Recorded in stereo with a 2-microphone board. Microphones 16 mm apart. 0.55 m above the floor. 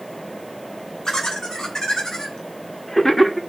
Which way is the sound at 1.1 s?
40° left (ahead or behind).